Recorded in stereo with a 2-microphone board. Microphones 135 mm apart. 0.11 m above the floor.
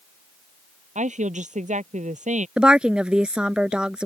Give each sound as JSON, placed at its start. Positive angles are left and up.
{"t": 0.9, "sound": "a woman speaking", "side_deg": -65}
{"t": 2.6, "sound": "a woman speaking", "side_deg": -5}